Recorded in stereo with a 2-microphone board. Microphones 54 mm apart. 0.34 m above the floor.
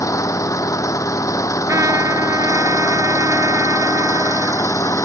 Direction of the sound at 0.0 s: 85° left.